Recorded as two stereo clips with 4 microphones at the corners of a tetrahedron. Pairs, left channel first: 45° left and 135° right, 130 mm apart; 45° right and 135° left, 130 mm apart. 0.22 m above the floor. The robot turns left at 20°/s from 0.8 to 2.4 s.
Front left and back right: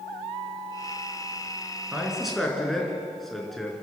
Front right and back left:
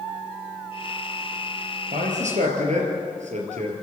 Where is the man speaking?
145° left, 4 m; by 3.7 s 135° left, 4 m.